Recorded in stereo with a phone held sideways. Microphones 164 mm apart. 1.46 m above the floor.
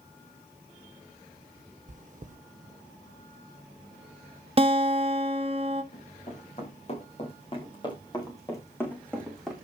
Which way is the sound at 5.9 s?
50° left (ahead or behind).